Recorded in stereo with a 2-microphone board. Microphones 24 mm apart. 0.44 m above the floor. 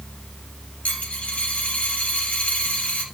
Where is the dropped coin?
60° left (ahead or behind), 3.5 m.